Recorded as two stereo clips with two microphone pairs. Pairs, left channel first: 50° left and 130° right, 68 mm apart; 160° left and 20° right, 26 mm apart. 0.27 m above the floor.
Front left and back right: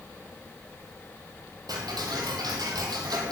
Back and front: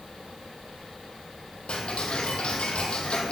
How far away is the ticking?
About 2.5 m.